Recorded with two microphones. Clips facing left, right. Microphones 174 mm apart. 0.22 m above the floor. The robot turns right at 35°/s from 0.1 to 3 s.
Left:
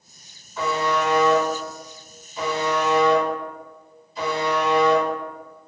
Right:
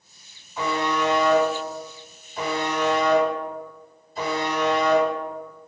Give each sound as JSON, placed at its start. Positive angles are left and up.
{"t": 0.6, "sound": "a buzzer", "side_deg": -15, "distance_m": 1.8}